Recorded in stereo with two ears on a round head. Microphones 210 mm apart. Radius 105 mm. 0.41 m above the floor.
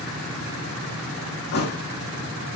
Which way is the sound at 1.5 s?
50° left (ahead or behind).